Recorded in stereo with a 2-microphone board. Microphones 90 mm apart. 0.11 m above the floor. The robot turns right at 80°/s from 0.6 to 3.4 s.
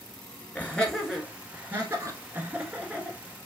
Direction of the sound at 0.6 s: 15° left (ahead or behind).